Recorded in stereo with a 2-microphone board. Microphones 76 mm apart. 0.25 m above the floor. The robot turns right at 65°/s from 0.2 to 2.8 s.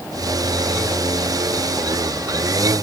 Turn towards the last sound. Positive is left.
No sound to turn to.